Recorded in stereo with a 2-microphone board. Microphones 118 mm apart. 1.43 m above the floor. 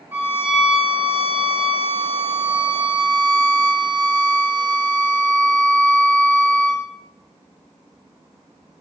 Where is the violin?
20° right (ahead or behind), 3 m.